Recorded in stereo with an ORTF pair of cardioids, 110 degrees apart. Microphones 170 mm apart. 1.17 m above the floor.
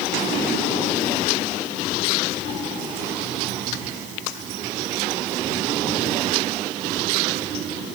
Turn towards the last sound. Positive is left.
No sound to turn to.